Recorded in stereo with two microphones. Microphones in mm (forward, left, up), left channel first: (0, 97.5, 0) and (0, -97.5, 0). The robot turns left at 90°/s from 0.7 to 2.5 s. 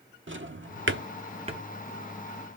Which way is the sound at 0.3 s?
80° right.